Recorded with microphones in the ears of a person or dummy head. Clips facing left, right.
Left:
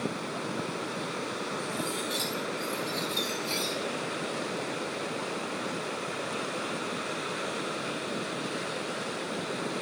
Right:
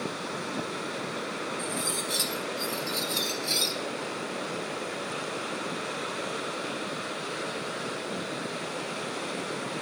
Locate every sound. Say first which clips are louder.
1.6 s cutlery clinking: even; 10° right (ahead or behind), 1.0 m